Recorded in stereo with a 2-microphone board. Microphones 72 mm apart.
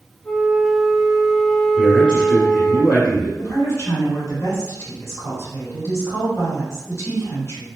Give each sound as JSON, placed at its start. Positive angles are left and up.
{"t": 0.2, "sound": "a flute", "side_deg": 5, "distance_m": 0.8}
{"t": 1.8, "sound": "a man speaking", "side_deg": 15, "distance_m": 2.0}
{"t": 3.4, "sound": "a woman speaking", "side_deg": 40, "distance_m": 2.0}